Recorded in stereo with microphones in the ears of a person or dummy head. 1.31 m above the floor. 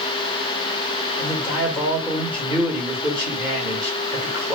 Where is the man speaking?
15° right (ahead or behind), 1.2 m.